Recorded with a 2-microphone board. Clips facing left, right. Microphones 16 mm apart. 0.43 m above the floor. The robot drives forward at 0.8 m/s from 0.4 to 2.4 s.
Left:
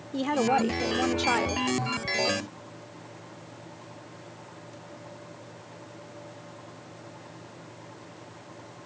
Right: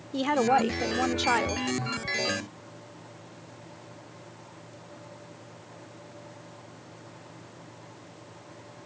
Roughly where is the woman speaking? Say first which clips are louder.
Right 1 dB; centre.